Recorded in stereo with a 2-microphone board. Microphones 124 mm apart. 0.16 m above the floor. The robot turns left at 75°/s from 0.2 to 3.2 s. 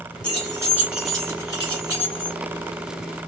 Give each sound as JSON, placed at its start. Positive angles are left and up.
{"t": 0.2, "sound": "keys jangling", "side_deg": -40, "distance_m": 1.6}